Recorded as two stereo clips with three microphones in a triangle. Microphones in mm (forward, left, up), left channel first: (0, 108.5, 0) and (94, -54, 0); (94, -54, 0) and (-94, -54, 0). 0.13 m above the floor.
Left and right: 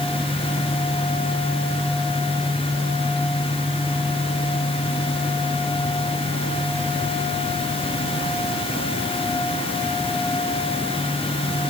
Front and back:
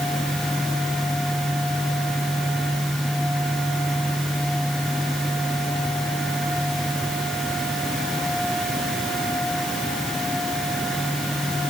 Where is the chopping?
No chopping in this recording.